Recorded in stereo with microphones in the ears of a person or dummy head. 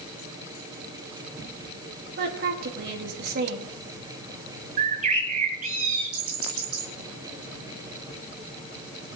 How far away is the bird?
About 2 m.